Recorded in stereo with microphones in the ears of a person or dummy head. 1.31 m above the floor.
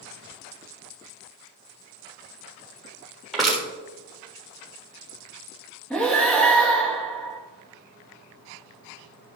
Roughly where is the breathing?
Centre.